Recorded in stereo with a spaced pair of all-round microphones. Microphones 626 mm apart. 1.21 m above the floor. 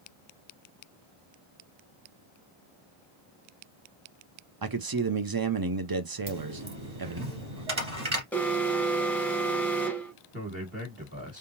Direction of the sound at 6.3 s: 50° right (ahead or behind).